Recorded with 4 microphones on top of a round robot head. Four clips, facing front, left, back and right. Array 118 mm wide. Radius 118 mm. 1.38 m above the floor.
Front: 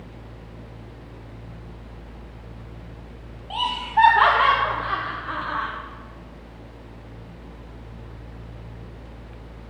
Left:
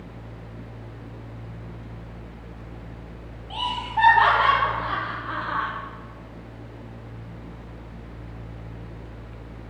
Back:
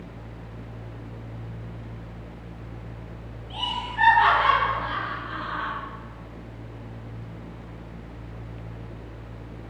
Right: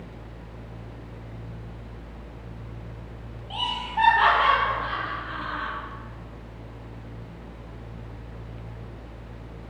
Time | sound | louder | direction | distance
3.5 | laughter | left 3 dB, front 9 dB | 5° left | 2.5 m